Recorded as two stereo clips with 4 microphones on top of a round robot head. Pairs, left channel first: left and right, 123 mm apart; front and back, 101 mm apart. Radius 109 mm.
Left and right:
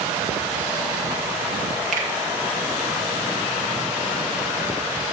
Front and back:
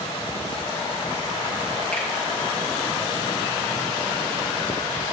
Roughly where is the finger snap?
Right.